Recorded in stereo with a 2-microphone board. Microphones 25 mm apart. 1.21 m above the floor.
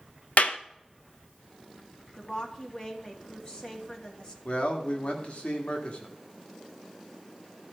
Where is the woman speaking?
35° left (ahead or behind), 2.5 m.